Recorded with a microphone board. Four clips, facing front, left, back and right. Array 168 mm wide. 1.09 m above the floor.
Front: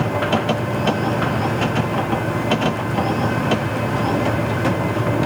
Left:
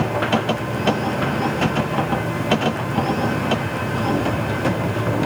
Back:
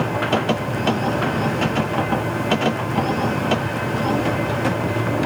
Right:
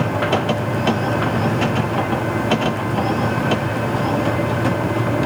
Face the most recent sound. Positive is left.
No sound to turn to.